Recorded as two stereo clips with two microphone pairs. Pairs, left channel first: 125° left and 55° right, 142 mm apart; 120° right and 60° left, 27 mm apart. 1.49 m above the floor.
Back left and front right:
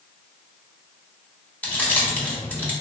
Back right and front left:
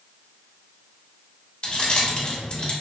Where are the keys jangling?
165° right, 0.6 m.